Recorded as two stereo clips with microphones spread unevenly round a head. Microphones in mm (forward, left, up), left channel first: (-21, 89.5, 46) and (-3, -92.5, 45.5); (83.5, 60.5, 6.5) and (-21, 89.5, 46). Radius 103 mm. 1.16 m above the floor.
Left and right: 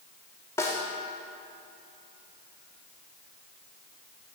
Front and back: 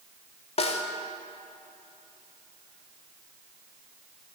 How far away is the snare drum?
About 0.9 m.